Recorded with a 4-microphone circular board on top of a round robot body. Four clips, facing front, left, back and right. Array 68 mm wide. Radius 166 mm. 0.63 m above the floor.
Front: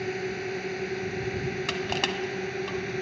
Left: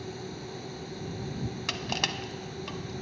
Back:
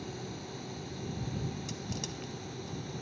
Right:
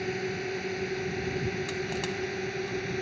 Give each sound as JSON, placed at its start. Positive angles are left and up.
{"t": 0.0, "sound": "a drone", "azimuth_deg": -35}
{"t": 1.7, "sound": "crushing", "azimuth_deg": 25}